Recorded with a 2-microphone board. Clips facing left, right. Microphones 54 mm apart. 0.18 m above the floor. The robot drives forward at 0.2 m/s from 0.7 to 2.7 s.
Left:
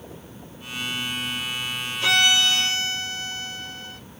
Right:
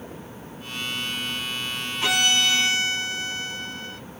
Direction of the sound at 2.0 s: 20° right (ahead or behind).